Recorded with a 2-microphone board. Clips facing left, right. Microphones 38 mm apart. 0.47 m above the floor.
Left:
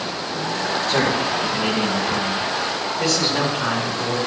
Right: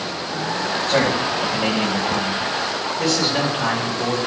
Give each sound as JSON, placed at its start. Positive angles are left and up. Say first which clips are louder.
{"t": 0.9, "sound": "a man speaking", "louder": "right 1 dB", "side_deg": -55, "distance_m": 3.0}